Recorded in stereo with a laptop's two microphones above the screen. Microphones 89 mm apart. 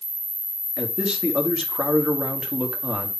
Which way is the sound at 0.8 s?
10° right (ahead or behind).